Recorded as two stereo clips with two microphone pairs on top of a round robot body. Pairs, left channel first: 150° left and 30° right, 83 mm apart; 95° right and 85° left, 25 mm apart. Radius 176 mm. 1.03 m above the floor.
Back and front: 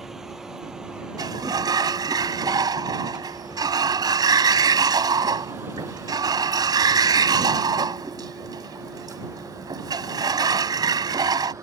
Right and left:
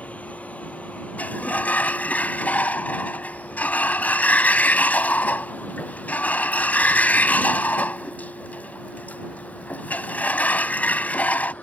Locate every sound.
0.0 s a vehicle: 120° right; by 11.6 s 85° right
1.2 s a sliding door: 75° right